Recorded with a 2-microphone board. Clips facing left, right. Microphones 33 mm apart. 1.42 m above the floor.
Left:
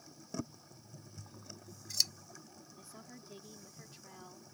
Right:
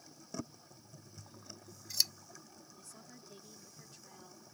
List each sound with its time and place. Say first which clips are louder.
1.2 s scissors: even; 5° right (ahead or behind)
2.8 s a woman speaking: left 4 dB; 20° left (ahead or behind)